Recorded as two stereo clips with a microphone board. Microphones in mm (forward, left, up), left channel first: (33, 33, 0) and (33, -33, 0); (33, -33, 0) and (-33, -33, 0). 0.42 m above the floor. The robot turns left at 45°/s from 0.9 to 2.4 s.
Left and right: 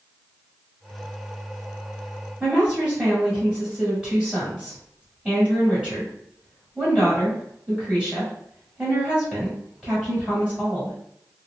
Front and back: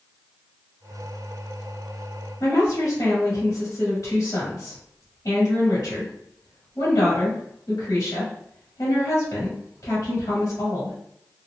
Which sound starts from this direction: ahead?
A woman speaking, at 2.4 s.